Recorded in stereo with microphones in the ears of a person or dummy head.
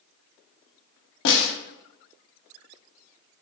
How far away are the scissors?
I don't hear scissors.